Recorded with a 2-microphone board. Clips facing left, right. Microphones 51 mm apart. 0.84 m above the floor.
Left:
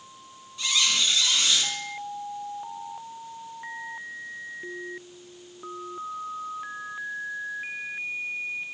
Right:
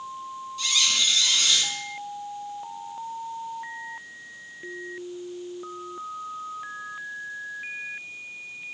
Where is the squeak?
15° left (ahead or behind), 3 m.